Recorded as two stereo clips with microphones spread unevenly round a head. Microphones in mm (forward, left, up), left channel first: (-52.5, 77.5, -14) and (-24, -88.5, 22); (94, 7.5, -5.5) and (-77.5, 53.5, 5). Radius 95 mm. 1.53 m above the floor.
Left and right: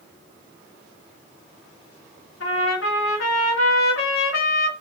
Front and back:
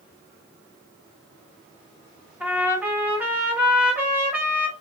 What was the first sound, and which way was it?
A trumpet, 85° left.